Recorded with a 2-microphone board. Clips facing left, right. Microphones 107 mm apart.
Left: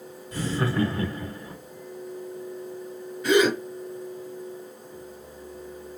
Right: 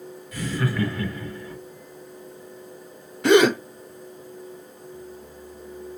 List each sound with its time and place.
0.3 s laughter: 30° left (ahead or behind), 1.0 m
3.2 s a gasp: 70° right (ahead or behind), 0.7 m